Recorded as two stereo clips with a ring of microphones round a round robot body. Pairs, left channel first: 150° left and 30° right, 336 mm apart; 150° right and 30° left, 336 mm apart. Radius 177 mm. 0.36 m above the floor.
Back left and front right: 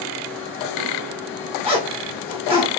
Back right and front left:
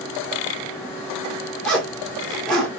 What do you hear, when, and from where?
1.6 s a zipper: 65° right, 1.4 m